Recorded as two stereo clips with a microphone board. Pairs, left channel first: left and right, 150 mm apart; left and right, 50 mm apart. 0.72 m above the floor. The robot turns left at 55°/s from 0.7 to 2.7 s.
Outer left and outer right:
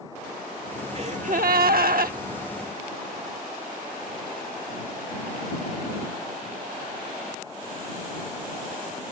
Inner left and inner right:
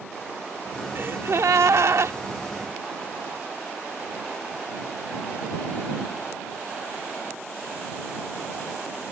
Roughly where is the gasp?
Ahead right.